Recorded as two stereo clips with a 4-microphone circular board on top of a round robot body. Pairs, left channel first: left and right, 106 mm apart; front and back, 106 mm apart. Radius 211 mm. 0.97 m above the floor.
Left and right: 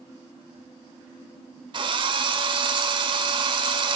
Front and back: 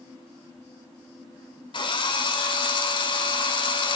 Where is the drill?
45° right, 2 m.